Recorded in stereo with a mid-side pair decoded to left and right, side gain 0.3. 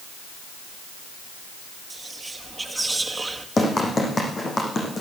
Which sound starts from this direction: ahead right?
Whispering, at 1.9 s.